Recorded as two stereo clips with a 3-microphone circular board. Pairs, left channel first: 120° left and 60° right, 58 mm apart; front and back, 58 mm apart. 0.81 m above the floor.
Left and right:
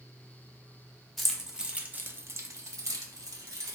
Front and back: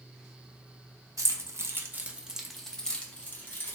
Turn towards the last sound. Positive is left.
turn(degrees=-55)